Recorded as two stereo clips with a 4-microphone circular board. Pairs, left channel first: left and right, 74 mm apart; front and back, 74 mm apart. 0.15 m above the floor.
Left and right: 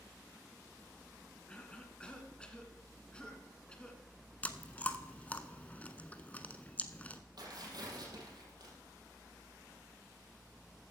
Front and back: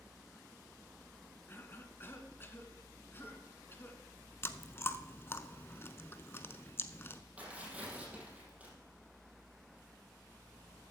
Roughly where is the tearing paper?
Right.